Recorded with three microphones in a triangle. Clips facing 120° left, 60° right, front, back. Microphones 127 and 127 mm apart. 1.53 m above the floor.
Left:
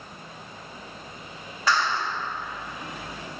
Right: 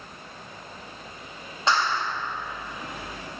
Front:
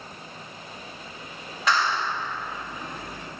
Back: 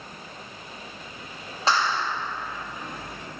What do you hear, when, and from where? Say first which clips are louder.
1.7 s a clap: even, even; 125° right, 1.8 m